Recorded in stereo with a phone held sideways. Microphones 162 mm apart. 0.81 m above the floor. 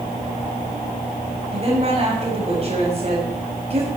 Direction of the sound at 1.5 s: 40° right (ahead or behind).